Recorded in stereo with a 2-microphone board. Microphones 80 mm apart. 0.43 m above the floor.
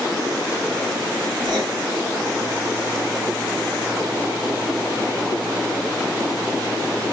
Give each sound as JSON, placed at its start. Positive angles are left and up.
{"t": 1.4, "sound": "writing", "side_deg": -80, "distance_m": 2.5}